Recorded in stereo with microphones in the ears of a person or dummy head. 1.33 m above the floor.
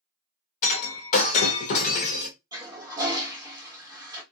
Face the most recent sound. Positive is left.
turn(degrees=-15)  # may be behind; listen again after turning